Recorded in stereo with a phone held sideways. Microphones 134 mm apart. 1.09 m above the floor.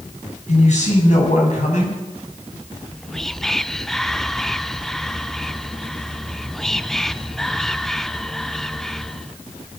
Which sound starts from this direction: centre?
Whispering, at 2.8 s.